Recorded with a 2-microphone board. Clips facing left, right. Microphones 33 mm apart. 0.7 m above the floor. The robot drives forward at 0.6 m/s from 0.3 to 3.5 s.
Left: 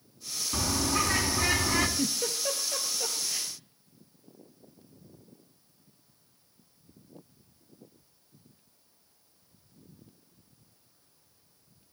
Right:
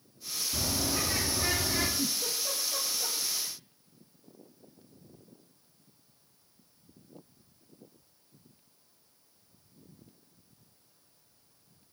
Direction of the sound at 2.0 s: 65° left (ahead or behind).